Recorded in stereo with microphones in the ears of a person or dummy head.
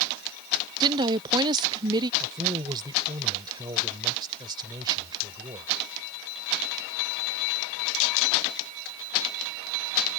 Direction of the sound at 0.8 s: 25° right (ahead or behind).